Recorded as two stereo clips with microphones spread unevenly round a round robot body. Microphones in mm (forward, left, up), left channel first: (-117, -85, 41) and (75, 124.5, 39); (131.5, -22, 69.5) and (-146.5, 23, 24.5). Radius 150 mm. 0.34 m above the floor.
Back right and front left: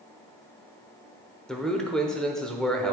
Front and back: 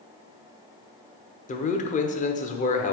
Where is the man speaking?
45° right, 1.0 m.